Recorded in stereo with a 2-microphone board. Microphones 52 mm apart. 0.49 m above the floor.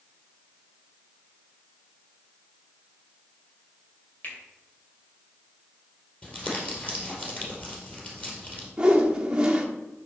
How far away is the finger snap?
About 2.5 m.